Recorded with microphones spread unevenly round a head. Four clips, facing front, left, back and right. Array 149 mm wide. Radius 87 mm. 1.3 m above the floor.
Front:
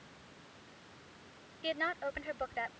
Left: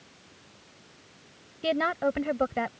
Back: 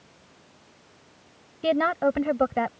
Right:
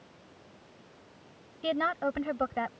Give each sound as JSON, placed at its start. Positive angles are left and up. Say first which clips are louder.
{"t": 1.6, "sound": "a woman speaking", "louder": "left 3 dB, back 14 dB", "azimuth_deg": 170}